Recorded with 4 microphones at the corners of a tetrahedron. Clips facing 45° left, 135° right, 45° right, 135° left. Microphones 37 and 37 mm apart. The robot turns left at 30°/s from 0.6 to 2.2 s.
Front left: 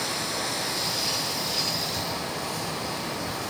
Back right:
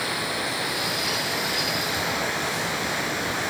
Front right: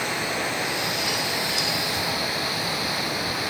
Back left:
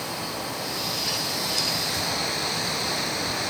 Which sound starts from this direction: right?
Running water, at 0.0 s.